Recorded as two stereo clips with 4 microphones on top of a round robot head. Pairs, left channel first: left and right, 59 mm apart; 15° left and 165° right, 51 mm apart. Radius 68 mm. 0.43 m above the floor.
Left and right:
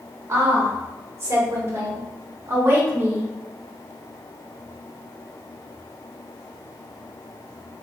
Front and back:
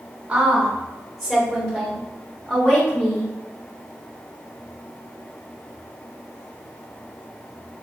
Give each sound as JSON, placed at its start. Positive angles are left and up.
{"t": 0.3, "sound": "a woman speaking", "azimuth_deg": -100, "distance_m": 1.6}